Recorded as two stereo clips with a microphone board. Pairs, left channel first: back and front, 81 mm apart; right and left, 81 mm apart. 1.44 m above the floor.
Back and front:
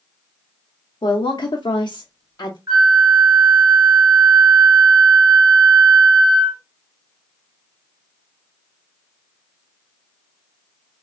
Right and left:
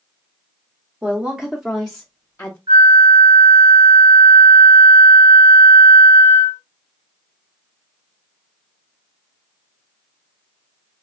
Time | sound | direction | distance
1.0 | a woman speaking | 160° left | 0.8 m
2.7 | a flute | 60° left | 2 m